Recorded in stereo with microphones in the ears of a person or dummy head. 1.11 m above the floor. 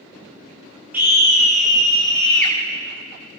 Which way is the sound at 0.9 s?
15° right (ahead or behind).